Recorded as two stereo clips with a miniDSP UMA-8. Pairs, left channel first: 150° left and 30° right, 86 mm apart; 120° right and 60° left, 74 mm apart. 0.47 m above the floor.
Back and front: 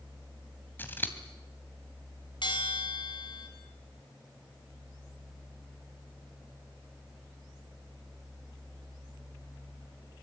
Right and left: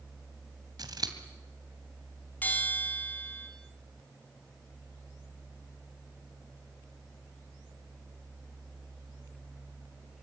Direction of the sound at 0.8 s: 85° left.